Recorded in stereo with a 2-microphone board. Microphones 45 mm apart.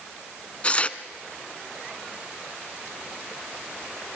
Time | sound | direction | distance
0.6 | tearing paper | 25° left (ahead or behind) | 1.2 m